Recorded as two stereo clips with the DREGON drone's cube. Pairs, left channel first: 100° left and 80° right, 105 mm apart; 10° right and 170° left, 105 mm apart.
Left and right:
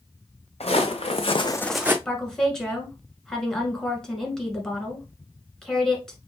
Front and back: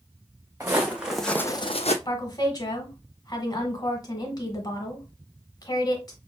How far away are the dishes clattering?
I don't hear dishes clattering.